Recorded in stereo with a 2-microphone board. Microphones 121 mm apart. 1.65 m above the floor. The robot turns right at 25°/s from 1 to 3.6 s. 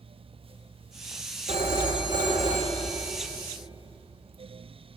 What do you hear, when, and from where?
1.5 s a phone ringing: 65° right, 1.9 m; by 3.1 s 20° right, 1.9 m